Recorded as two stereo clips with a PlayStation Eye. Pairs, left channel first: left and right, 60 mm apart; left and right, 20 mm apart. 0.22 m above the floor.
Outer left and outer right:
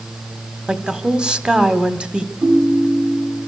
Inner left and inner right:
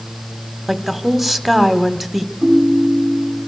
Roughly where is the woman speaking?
Centre.